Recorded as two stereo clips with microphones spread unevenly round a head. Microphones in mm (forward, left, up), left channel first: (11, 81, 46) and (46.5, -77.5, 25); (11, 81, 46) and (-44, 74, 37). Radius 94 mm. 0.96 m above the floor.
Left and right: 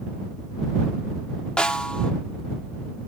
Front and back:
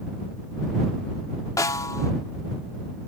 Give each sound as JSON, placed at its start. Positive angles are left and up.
{"t": 1.6, "sound": "a snare drum", "azimuth_deg": 20}